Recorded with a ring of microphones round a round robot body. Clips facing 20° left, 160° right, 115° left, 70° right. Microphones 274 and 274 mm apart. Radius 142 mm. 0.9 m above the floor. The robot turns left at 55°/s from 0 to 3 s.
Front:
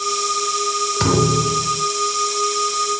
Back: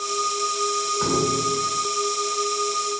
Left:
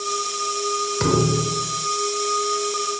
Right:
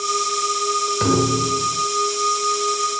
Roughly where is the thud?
Ahead left.